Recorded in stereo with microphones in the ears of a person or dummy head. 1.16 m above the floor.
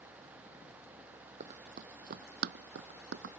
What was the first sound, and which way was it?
Running footsteps, 45° right (ahead or behind).